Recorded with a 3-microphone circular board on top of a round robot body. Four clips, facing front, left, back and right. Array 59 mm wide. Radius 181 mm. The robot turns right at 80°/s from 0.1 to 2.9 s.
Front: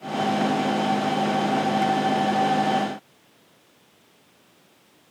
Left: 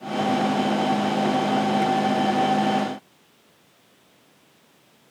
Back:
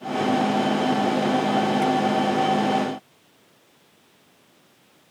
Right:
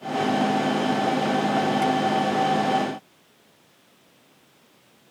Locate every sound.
Only background noise.